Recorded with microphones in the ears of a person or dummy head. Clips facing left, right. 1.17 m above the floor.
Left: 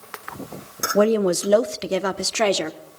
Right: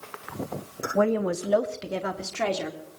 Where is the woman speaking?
35° left (ahead or behind), 0.6 m; by 2.8 s 60° left (ahead or behind), 1.4 m.